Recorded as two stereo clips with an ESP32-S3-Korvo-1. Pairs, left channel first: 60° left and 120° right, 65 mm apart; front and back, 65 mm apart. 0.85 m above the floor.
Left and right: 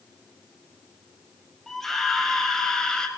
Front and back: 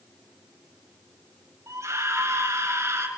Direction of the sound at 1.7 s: 145° left.